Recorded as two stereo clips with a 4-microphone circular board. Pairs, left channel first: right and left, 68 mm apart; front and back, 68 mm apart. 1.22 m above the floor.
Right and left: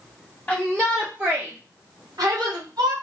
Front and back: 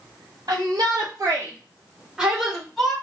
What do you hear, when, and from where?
0.5 s a shout: 170° right, 0.8 m; by 2.9 s 90° left, 1.5 m